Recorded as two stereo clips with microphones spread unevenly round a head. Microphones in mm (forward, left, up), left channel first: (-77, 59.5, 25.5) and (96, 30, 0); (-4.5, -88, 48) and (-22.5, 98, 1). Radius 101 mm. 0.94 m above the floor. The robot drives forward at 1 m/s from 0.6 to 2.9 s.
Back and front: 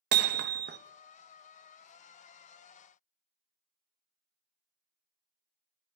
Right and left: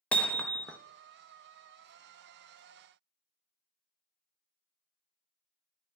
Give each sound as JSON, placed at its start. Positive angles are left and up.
{"t": 0.1, "sound": "hammering", "azimuth_deg": 5, "distance_m": 0.8}